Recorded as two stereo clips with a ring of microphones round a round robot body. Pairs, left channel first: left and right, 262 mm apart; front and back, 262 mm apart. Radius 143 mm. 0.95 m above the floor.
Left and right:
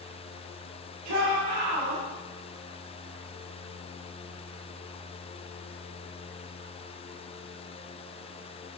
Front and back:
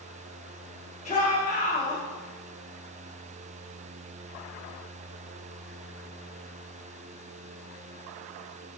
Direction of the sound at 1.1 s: 60° right.